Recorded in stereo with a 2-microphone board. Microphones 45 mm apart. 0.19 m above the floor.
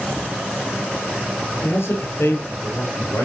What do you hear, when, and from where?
1.6 s a man speaking: 70° left (ahead or behind), 4 m; by 3.2 s 75° left (ahead or behind), 5.5 m